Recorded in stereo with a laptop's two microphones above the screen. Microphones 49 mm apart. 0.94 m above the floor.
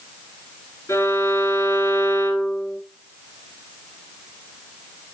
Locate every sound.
0.9 s a violin: 60° left (ahead or behind), 4.5 m